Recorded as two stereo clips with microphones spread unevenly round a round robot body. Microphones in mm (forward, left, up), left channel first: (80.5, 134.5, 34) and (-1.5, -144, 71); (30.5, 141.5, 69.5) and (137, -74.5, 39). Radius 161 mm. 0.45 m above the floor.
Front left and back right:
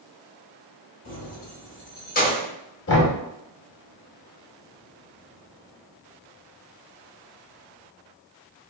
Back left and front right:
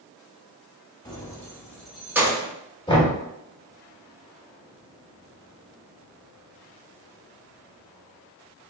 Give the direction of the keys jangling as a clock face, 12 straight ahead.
11 o'clock.